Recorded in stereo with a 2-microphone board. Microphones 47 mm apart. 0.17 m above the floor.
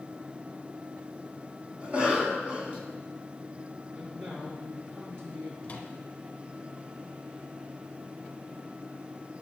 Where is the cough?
25° right (ahead or behind), 1.6 m.